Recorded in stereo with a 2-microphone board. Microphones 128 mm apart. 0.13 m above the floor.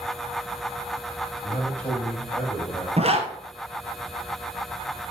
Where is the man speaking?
15° left (ahead or behind), 6 m.